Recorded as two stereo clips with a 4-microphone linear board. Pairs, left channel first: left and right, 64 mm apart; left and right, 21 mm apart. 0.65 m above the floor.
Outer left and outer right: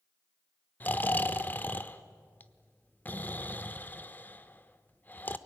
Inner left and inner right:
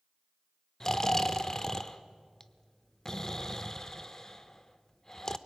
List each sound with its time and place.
0.8 s snoring: 30° left (ahead or behind), 0.8 m